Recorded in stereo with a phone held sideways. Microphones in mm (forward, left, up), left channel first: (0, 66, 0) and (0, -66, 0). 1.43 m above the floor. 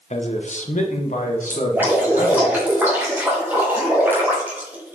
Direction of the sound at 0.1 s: 60° left (ahead or behind).